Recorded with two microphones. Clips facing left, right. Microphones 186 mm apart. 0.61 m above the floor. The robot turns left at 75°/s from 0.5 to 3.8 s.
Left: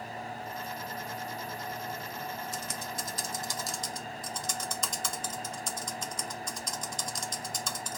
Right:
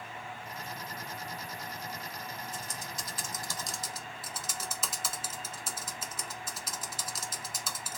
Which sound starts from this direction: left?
Typing on a keyboard, at 2.5 s.